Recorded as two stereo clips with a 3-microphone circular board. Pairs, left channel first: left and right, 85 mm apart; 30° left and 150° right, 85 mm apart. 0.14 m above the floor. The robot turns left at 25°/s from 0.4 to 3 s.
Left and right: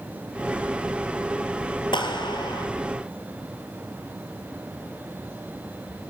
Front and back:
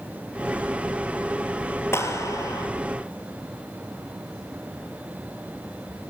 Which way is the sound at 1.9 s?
85° left.